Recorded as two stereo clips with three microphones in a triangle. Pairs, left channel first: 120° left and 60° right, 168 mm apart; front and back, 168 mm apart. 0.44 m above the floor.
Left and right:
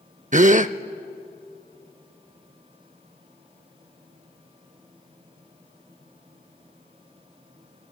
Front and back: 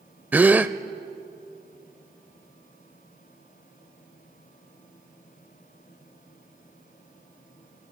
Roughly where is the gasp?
Right.